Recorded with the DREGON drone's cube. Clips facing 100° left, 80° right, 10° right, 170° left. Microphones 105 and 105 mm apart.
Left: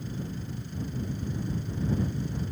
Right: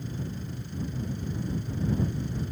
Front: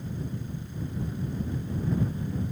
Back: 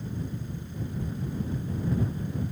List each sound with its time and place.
Only background noise.